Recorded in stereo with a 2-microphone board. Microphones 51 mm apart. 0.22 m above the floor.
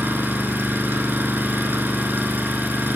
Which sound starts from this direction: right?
An engine running, at 0.0 s.